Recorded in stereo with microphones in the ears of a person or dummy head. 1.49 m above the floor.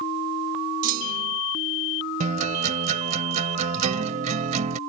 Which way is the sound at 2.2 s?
45° right (ahead or behind).